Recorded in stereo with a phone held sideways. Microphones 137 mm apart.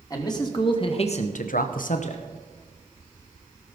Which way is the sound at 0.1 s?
25° left (ahead or behind).